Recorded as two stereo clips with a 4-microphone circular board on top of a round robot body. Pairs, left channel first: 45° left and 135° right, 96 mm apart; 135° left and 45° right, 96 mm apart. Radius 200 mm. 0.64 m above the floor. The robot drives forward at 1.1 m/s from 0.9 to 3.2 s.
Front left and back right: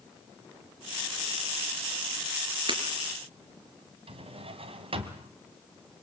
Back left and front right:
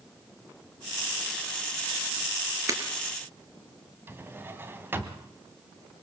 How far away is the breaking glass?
About 4 m.